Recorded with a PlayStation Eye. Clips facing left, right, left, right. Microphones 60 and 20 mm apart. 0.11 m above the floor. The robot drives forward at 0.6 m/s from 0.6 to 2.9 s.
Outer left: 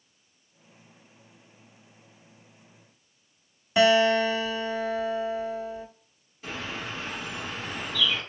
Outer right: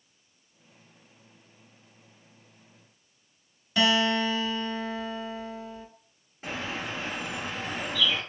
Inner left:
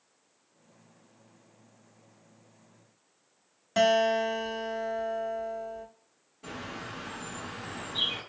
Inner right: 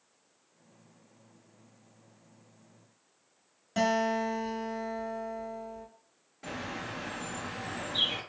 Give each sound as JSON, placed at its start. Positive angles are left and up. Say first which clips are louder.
{"t": 3.8, "sound": "a guitar", "louder": "outer left 5 dB, inner left 4 dB", "side_deg": 25, "distance_m": 1.1}
{"t": 6.4, "sound": "a bird", "louder": "outer right 1 dB, inner right 2 dB", "side_deg": -35, "distance_m": 2.0}